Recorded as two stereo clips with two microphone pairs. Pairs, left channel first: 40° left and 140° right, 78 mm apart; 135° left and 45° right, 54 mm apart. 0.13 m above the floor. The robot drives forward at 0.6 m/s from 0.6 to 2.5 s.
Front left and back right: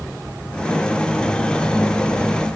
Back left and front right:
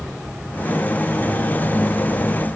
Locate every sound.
Only background noise.